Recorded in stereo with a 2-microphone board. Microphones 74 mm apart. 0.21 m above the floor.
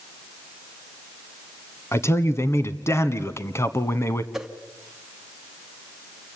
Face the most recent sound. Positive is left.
turn(degrees=-5)  # may be behind; listen again after turning